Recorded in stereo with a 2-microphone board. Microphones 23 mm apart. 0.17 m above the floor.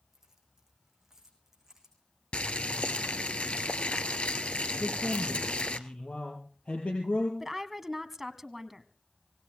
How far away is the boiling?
About 1.2 m.